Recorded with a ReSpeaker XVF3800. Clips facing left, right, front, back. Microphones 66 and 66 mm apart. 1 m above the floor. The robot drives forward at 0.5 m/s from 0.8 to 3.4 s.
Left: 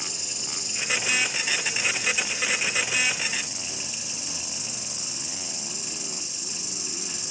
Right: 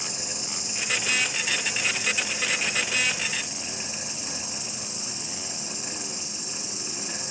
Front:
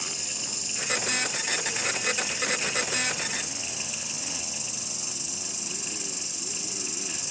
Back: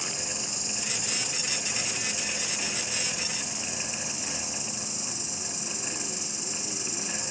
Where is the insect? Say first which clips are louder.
Right 2 dB, back 2 dB; 145° left, 4 m; by 7.3 s 155° left, 5 m.